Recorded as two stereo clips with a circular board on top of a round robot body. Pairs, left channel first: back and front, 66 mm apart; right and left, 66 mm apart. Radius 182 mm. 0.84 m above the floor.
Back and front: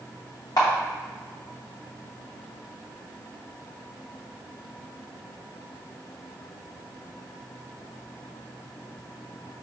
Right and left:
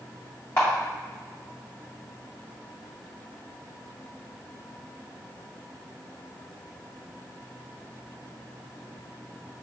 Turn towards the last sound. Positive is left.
turn(degrees=-145)